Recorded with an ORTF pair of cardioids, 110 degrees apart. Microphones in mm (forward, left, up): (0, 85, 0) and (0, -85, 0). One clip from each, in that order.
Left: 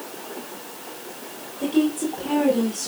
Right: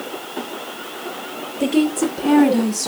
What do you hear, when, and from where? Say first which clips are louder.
1.6 s a woman speaking: right 4 dB; 60° right, 4.5 m